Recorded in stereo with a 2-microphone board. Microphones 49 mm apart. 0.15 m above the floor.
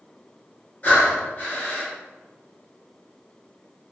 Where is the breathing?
30° left (ahead or behind), 0.9 m.